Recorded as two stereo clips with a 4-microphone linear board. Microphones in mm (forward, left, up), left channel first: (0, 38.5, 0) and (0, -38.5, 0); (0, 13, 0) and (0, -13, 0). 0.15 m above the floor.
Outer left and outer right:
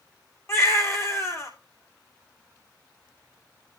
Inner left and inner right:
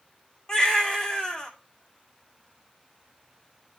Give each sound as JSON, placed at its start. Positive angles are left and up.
{"t": 0.5, "sound": "a baby crying", "side_deg": 40, "distance_m": 3.0}